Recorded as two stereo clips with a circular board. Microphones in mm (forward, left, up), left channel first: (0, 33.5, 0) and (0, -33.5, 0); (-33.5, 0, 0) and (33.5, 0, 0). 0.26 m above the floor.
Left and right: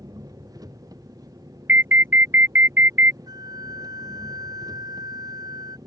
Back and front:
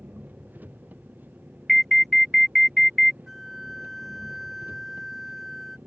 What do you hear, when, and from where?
0.0 s an engine running: 65° right
1.7 s an alarm: 95° right
3.3 s a flute: 85° right